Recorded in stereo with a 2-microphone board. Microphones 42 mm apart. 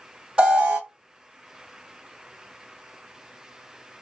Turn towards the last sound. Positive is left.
turn(degrees=-25)  # may be behind; listen again after turning